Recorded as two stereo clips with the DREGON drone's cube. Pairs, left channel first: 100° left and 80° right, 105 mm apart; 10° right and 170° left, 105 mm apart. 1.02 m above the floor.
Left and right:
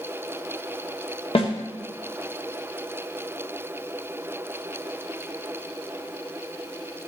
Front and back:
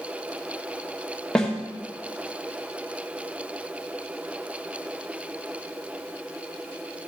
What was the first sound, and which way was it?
A snare drum, 70° left.